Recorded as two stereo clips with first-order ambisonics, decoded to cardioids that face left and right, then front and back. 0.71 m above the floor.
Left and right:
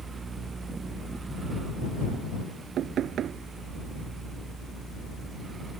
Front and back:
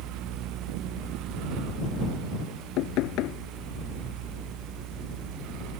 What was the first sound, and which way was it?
Knocking, 35° right.